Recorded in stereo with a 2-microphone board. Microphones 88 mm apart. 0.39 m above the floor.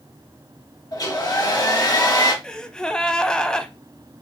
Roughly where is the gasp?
Centre.